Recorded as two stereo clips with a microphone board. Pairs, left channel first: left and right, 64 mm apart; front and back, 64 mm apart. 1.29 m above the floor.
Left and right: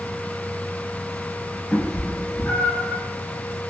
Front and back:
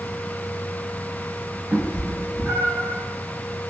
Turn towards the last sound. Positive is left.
turn(degrees=150)